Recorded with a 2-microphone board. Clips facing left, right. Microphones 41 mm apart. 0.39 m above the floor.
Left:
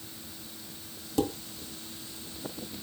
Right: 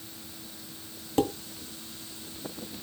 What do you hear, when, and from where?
1.2 s dishes clattering: 40° right (ahead or behind), 1.5 m